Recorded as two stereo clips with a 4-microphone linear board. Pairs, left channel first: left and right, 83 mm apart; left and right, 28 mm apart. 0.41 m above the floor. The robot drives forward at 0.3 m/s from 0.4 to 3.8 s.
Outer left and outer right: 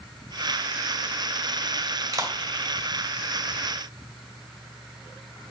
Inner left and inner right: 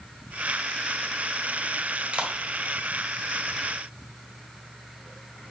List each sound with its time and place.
2.1 s a clap: 45° right (ahead or behind), 1.7 m